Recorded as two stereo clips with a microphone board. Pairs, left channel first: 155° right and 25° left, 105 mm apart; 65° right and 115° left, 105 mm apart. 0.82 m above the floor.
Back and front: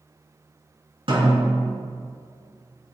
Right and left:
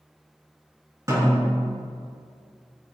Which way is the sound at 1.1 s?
55° left.